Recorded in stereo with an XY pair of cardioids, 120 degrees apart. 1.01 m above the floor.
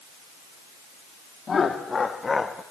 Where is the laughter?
35° left, 1.9 m; by 2.6 s 20° left, 0.9 m.